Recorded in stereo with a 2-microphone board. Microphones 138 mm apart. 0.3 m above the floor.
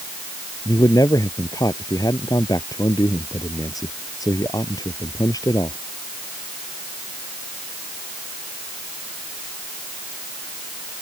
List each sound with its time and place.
0.7 s a man speaking: 25° left (ahead or behind)